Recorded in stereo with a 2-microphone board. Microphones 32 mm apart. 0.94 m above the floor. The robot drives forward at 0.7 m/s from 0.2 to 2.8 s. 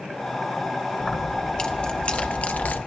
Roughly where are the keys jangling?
Left.